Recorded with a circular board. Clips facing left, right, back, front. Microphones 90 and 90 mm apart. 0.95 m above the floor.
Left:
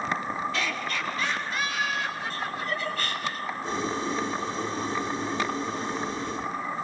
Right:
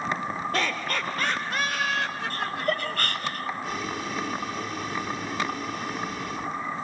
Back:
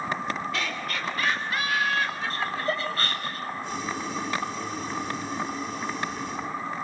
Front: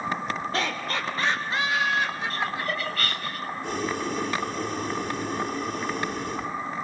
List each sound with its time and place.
0.5 s laughter: 50° right, 3 m; by 3.0 s 80° right, 4.5 m
2.3 s laughter: 120° right, 6 m
3.6 s boiling: 30° left, 4 m